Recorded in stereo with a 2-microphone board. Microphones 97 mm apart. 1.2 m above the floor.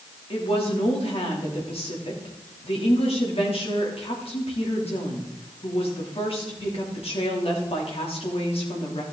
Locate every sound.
0.3 s a woman speaking: 80° left, 3 m